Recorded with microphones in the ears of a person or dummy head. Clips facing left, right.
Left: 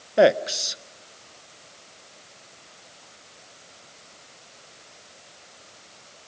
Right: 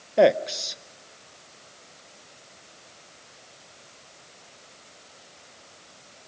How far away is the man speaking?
About 0.7 m.